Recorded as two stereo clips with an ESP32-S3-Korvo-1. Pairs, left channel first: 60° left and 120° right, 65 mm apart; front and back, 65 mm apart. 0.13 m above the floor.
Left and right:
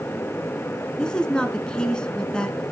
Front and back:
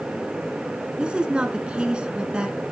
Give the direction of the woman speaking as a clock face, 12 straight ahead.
8 o'clock.